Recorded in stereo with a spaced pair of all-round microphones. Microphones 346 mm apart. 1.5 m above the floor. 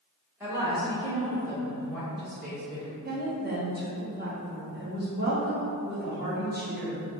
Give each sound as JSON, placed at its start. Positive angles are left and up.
{"t": 0.4, "sound": "a woman speaking", "side_deg": -5, "distance_m": 1.4}
{"t": 3.0, "sound": "a woman speaking", "side_deg": -30, "distance_m": 1.2}